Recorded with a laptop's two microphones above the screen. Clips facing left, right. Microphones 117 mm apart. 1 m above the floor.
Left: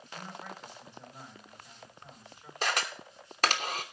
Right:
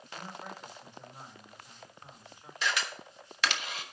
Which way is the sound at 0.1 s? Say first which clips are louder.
Even; 15° right (ahead or behind).